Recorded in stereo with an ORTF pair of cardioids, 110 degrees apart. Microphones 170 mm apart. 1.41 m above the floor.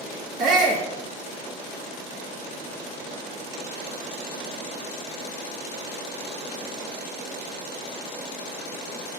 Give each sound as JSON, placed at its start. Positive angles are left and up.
{"t": 0.4, "sound": "a shout", "azimuth_deg": -50, "distance_m": 2.0}